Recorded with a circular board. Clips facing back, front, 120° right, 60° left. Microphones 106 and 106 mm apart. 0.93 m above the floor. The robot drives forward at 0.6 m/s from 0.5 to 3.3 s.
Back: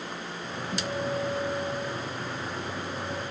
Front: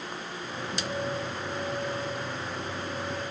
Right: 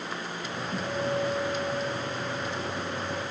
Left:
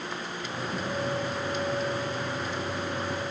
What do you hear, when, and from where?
0.7 s a guitar: straight behind, 5.5 m